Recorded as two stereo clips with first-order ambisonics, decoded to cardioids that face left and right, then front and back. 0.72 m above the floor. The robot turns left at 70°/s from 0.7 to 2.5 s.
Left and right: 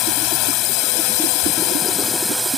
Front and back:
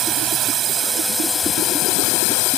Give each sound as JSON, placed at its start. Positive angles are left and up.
{"t": 0.0, "sound": "a drone", "azimuth_deg": 120}